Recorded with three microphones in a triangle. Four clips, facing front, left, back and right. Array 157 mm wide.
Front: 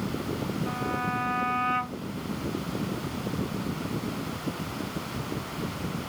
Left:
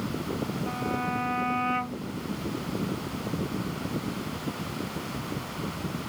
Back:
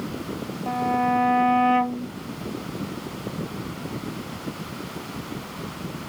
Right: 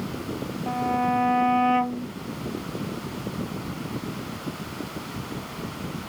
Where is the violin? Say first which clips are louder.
Right 10 dB, back 12 dB; 145° right.